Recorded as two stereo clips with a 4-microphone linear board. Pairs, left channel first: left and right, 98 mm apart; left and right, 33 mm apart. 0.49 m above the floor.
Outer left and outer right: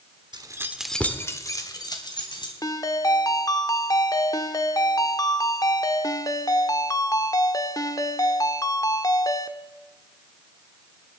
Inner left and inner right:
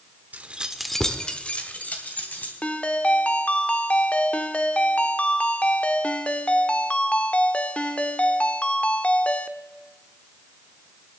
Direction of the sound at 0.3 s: 45° right (ahead or behind).